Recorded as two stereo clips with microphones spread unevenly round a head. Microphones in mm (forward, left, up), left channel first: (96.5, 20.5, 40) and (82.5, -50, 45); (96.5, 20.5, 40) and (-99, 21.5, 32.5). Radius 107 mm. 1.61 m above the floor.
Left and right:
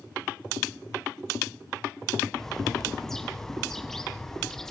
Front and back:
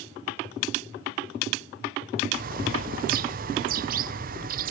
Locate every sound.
2.3 s a bird: 170° left, 0.5 m